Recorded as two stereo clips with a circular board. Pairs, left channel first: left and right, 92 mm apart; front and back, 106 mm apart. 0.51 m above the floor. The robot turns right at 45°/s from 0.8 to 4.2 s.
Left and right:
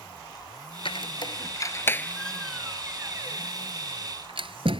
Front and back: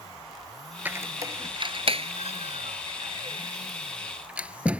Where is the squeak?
105° left; by 4.8 s 100° right.